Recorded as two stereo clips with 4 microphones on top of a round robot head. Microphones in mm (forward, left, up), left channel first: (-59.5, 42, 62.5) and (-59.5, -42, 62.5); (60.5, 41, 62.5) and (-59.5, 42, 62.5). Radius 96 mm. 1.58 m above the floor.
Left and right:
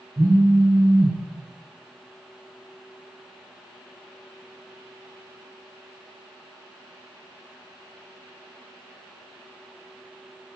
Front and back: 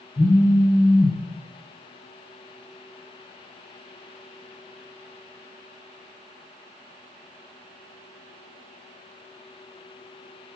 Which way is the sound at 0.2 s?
50° right.